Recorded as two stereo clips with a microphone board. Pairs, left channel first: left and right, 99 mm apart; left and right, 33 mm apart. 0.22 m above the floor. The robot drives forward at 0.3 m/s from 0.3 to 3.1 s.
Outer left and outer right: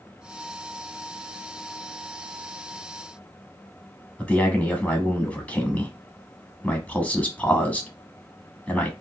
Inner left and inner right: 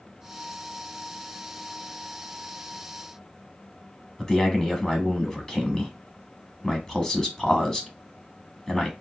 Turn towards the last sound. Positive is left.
turn(degrees=15)  # may be behind; listen again after turning